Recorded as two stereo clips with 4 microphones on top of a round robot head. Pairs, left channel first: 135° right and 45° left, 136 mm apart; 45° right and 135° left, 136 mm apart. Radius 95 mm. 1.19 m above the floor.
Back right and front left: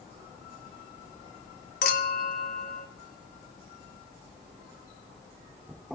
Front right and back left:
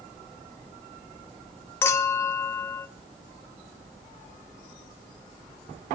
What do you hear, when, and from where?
1.8 s a clink: 115° right, 1.0 m